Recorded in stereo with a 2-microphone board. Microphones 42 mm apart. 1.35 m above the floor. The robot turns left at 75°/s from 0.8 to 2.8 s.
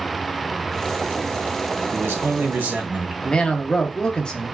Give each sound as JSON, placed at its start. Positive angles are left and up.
{"t": 1.9, "sound": "a man speaking", "azimuth_deg": -85, "distance_m": 1.3}
{"t": 3.2, "sound": "a man speaking", "side_deg": 15, "distance_m": 0.7}